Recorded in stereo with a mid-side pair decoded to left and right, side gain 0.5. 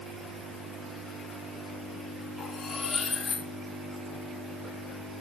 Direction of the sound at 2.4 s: 40° left.